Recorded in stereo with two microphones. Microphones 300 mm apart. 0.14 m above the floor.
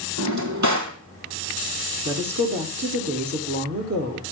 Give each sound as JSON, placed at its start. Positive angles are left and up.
{"t": 0.2, "sound": "a drawer", "side_deg": -70, "distance_m": 2.0}
{"t": 2.0, "sound": "a woman speaking", "side_deg": -55, "distance_m": 4.5}